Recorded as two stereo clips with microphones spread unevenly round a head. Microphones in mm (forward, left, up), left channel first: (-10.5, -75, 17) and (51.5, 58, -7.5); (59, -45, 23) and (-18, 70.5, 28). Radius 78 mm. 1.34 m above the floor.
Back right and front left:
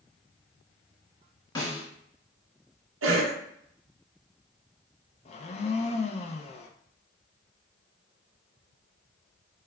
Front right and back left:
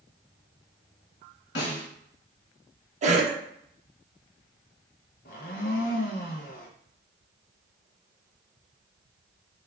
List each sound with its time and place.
1.6 s a snare drum: 55° right, 1.9 m
3.0 s a cough: 80° left, 1.0 m
5.2 s a blender: 85° right, 0.6 m